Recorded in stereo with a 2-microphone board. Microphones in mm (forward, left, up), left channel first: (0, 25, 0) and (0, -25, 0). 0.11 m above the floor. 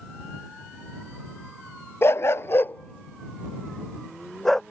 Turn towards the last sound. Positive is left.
turn(degrees=10)  # may be behind; listen again after turning